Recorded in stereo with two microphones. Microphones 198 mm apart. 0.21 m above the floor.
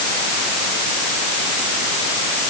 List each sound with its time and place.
Only background noise.